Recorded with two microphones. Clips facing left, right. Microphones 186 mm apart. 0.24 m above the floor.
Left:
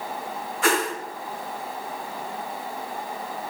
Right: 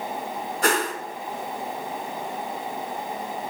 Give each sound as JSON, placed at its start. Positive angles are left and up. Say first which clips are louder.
{"t": 0.6, "sound": "a whoosh", "louder": "left 1 dB", "side_deg": -45, "distance_m": 2.5}